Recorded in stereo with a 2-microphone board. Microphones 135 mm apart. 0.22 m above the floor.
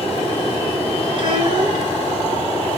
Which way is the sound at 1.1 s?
50° right (ahead or behind).